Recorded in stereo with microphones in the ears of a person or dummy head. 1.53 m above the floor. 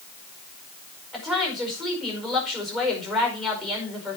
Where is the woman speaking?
Centre (ahead or behind), 5 m.